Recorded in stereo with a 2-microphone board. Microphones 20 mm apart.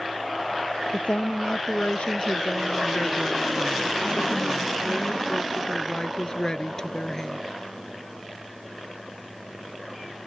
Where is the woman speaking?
75° left (ahead or behind); by 7.4 s 30° left (ahead or behind).